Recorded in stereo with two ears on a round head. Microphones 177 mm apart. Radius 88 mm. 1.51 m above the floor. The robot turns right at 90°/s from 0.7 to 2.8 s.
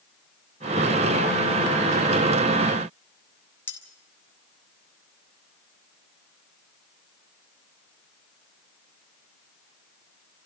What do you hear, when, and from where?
3.7 s cutlery clinking: 10° left (ahead or behind), 3 m